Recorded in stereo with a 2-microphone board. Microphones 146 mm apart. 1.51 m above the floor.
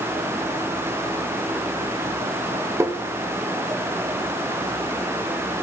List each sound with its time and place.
2.8 s tapping: 20° right (ahead or behind), 0.7 m